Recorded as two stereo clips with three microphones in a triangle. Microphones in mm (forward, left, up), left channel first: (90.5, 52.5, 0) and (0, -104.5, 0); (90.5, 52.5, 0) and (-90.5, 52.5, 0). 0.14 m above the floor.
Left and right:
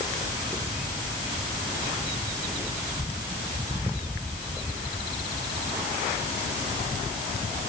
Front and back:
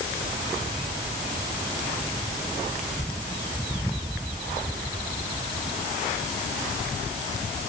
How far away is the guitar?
I don't hear a guitar.